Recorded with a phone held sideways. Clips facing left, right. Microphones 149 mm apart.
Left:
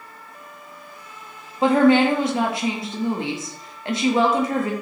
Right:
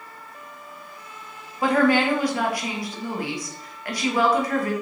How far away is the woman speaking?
About 0.9 m.